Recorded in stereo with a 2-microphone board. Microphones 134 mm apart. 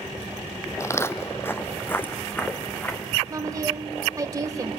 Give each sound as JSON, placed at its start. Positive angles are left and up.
{"t": 0.8, "sound": "footsteps", "side_deg": 25, "distance_m": 0.7}
{"t": 3.3, "sound": "a woman speaking", "side_deg": -25, "distance_m": 1.1}